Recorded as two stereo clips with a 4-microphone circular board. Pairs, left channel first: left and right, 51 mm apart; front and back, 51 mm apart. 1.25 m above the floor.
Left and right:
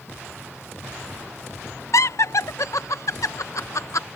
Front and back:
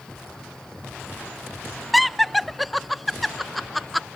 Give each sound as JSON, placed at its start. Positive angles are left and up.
{"t": 1.9, "sound": "laughter", "azimuth_deg": 90}